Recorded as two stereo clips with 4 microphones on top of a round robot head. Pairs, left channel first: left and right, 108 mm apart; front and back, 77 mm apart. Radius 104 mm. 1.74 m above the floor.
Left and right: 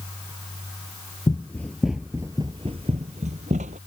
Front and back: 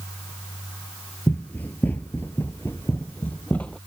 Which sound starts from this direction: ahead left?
Running footsteps, at 1.3 s.